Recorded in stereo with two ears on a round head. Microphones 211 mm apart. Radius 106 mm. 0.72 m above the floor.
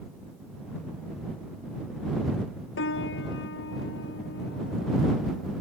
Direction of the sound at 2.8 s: 55° left (ahead or behind).